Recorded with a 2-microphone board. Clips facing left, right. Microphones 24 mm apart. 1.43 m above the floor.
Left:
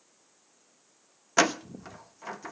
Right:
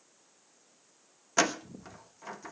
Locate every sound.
1.4 s a door slam: 15° left (ahead or behind), 0.9 m